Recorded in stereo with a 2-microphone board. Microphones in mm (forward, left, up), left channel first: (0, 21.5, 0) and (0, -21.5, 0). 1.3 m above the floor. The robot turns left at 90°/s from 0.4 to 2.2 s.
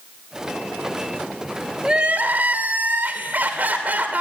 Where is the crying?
15° right, 2.5 m; by 4.2 s 45° right, 2.5 m.